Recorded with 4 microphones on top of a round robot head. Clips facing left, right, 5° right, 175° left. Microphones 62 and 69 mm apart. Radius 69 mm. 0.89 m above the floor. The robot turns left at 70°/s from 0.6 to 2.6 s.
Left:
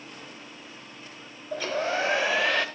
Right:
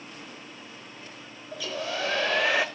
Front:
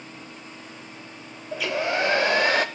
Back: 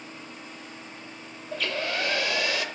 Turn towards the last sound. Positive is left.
turn(degrees=-10)